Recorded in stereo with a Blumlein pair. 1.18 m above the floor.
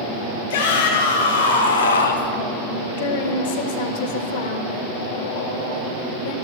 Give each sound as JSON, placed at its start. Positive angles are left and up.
{"t": 0.5, "sound": "a shout", "azimuth_deg": 60, "distance_m": 1.8}
{"t": 3.0, "sound": "a woman speaking", "azimuth_deg": 60, "distance_m": 1.2}